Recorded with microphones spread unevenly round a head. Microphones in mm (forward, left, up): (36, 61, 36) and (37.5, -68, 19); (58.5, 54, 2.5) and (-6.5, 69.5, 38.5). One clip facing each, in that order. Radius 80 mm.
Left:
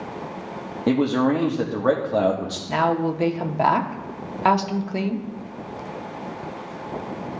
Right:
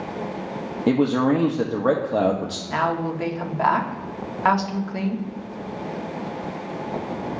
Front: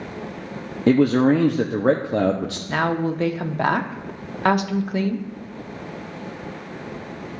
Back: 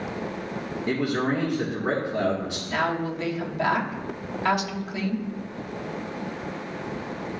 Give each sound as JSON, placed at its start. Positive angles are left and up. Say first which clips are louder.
{"t": 0.9, "sound": "a man speaking", "louder": "right 1 dB, front 10 dB", "azimuth_deg": 0, "distance_m": 0.6}
{"t": 2.7, "sound": "a woman speaking", "louder": "left 3 dB, front 4 dB", "azimuth_deg": 30, "distance_m": 0.8}